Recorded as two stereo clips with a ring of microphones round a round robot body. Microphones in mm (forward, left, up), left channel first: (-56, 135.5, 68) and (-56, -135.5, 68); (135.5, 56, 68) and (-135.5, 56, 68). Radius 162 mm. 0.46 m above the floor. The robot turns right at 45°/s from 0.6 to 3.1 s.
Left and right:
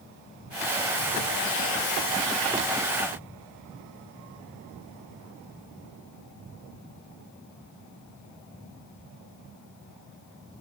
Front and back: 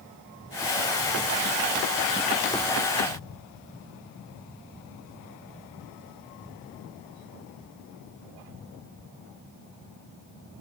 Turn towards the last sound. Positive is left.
No sound to turn to.